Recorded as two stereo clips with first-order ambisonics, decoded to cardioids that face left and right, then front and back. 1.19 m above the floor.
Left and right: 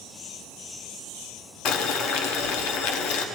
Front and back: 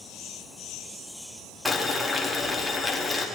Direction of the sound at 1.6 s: 90° left.